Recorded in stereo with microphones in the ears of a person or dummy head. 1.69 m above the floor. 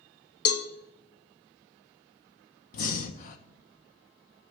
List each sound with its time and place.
0.5 s a cowbell: 45° left (ahead or behind), 0.8 m
2.7 s breathing: 45° left (ahead or behind), 1.1 m